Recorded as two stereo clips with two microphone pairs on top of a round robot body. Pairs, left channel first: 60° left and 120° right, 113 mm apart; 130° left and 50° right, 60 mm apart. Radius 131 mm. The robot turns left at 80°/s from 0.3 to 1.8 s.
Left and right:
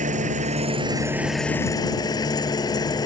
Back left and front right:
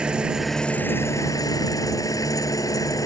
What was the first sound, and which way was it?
An engine running, 125° right.